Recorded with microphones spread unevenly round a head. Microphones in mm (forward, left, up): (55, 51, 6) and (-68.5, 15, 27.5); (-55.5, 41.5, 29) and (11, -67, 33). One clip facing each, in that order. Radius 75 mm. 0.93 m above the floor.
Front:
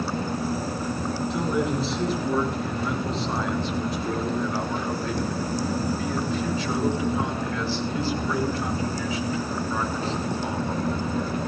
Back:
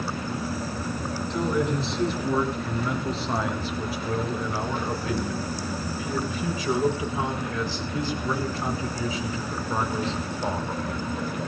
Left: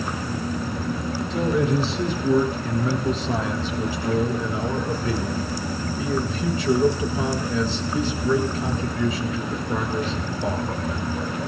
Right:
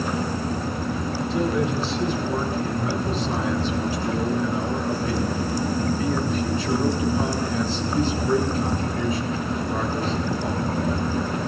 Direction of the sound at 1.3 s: 105° left.